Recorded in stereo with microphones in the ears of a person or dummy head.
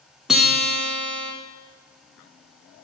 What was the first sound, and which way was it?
A guitar, 5° right (ahead or behind).